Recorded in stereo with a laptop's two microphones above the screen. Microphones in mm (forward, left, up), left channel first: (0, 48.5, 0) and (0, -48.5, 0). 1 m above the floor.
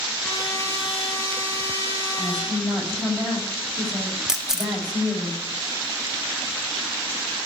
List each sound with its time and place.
0.2 s a trumpet: 30° left (ahead or behind), 4.5 m
2.2 s a woman speaking: 5° left (ahead or behind), 4.5 m
4.3 s a camera shutter: 5° right (ahead or behind), 0.6 m